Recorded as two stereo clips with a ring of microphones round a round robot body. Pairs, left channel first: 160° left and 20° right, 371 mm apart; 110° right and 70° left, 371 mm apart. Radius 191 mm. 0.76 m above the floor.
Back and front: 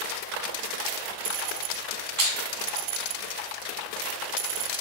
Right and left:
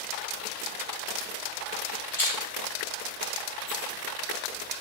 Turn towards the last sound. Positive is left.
turn(degrees=-25)